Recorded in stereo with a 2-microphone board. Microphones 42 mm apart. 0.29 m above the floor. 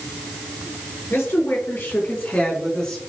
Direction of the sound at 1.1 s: 65° left (ahead or behind).